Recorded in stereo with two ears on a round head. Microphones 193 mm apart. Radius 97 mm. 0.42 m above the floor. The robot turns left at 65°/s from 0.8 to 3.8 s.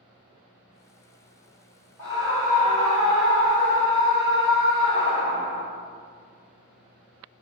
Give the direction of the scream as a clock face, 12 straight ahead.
7 o'clock.